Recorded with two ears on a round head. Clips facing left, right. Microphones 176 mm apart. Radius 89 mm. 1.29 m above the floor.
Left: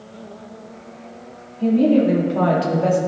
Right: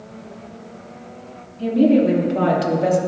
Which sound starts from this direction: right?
A woman speaking, at 1.6 s.